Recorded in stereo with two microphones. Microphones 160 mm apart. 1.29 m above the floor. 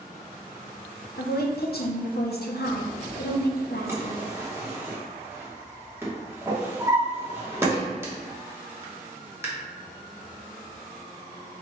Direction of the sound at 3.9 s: 15° right (ahead or behind).